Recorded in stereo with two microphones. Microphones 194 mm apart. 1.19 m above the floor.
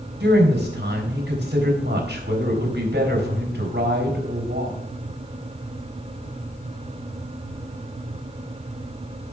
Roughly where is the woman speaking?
Right.